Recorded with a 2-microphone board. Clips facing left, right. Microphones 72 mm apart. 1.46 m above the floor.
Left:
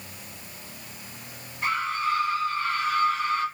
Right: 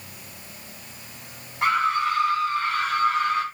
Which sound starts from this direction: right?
A scream, at 1.6 s.